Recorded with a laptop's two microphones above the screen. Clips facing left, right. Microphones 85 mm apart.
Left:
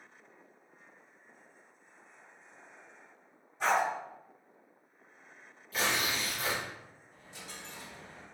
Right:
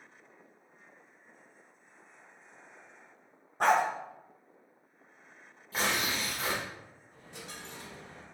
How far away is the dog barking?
About 0.6 m.